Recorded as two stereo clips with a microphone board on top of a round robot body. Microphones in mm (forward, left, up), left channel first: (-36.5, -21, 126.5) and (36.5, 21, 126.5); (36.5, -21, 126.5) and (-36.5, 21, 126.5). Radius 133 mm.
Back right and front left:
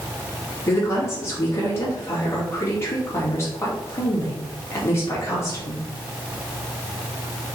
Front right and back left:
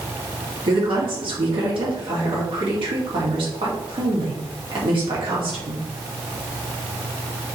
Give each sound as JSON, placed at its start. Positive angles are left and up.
{"t": 0.7, "sound": "a woman speaking", "azimuth_deg": 150, "distance_m": 3.0}